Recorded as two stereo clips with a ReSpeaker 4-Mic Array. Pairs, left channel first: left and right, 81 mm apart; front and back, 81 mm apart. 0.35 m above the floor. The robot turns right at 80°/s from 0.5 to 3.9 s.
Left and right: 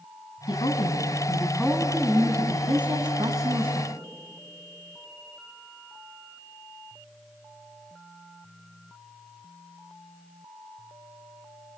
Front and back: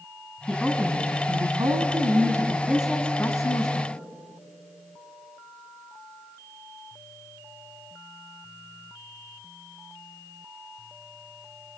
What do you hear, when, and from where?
0.5 s a woman speaking: 80° left, 2.5 m; by 3.9 s 10° right, 2.5 m